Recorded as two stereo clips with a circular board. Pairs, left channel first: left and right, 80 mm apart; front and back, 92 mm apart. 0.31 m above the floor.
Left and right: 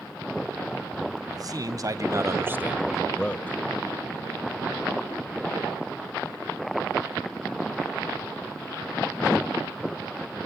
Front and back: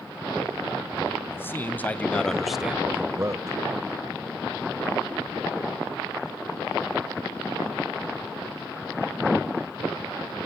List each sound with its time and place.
1.3 s a man speaking: 60° right, 2.5 m; by 3.6 s 145° left, 1.5 m